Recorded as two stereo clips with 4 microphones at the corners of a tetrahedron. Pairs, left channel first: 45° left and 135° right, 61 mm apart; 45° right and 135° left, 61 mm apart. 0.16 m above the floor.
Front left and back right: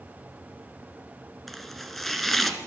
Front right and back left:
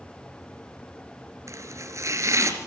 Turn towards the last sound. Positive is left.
turn(degrees=130)